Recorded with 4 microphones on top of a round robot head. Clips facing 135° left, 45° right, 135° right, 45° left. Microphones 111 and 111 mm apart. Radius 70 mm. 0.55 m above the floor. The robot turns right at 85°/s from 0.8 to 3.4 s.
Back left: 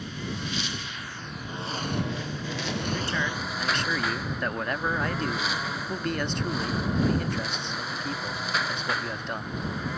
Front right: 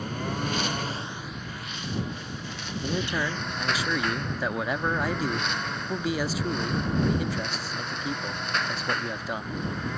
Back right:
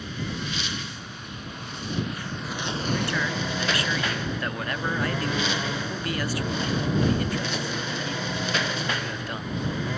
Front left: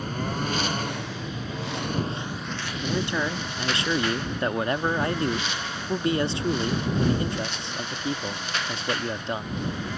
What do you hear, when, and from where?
0.0 s a lawn mower: straight ahead; by 10.0 s 140° right
2.8 s a man speaking: 20° right; by 9.6 s 30° left